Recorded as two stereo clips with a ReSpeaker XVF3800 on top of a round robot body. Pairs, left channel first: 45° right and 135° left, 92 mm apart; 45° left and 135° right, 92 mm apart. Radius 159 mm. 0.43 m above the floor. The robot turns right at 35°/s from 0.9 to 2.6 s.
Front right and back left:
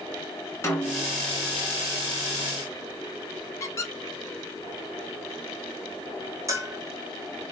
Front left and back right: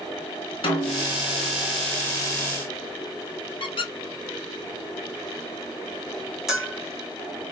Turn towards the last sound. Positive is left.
turn(degrees=145)